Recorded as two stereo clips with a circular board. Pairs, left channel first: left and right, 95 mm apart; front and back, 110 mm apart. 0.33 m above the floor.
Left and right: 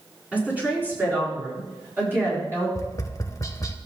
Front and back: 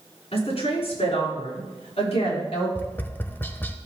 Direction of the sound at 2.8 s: 60° left.